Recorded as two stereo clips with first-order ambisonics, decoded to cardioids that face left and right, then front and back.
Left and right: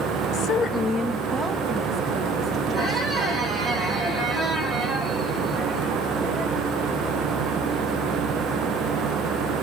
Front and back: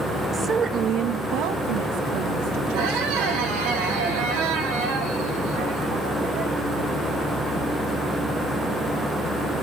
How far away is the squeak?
About 2.5 m.